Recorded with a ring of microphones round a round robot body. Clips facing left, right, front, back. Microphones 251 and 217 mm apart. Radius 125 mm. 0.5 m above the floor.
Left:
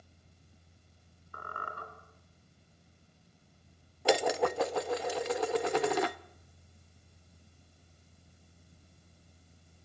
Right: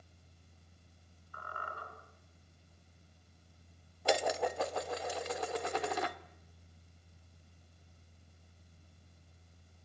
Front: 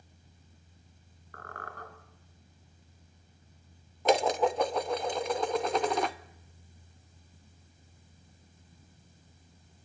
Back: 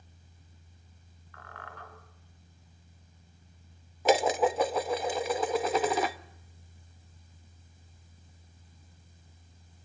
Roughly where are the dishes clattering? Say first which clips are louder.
Left 5 dB, back 1 dB; left.